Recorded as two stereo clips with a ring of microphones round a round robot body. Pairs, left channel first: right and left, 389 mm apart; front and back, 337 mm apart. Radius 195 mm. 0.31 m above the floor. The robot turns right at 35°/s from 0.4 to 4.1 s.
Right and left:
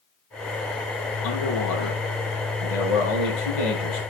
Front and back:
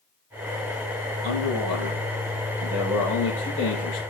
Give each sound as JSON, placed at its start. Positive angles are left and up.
{"t": 1.2, "sound": "a man speaking", "azimuth_deg": -150, "distance_m": 9.0}